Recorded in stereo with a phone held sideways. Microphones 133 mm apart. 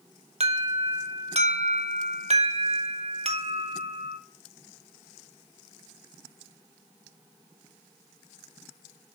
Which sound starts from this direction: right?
An alarm, at 0.4 s.